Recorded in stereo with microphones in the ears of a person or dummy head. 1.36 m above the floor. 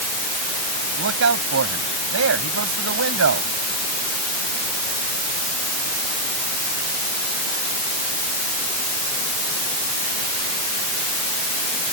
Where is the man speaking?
80° right.